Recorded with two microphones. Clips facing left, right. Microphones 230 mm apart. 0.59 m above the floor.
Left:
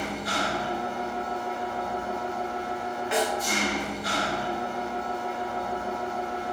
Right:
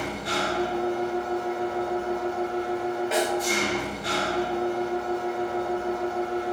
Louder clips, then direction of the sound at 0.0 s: Right 2 dB; 25° right (ahead or behind).